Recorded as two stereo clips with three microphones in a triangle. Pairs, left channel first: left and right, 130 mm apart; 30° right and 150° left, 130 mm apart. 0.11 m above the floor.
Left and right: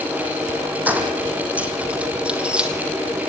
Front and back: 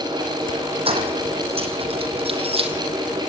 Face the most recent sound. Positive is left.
turn(degrees=-170)